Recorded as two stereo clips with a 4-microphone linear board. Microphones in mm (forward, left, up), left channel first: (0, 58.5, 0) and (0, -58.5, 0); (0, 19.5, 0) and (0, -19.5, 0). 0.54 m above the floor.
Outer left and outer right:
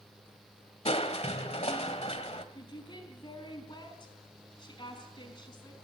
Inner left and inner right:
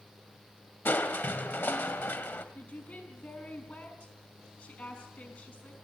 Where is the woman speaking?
40° left (ahead or behind), 4.5 m.